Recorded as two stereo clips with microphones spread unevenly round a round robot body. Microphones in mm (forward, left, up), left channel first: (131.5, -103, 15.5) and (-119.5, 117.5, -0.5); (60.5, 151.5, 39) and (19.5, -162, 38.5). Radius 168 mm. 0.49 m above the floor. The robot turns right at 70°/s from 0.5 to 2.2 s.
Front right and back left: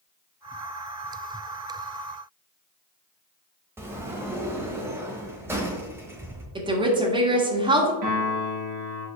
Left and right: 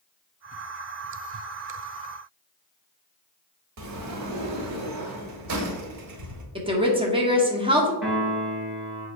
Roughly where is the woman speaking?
Behind.